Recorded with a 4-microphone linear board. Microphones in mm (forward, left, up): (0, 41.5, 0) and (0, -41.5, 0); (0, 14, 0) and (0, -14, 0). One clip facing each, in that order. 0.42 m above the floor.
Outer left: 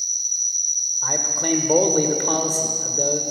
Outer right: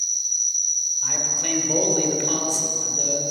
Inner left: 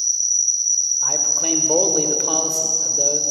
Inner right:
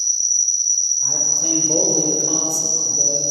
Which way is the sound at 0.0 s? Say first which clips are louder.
Even, inner right 1 dB; 45° right (ahead or behind).